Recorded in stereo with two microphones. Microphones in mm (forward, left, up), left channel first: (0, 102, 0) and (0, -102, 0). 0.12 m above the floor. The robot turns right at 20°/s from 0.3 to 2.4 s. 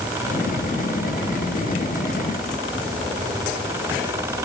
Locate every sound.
Only background noise.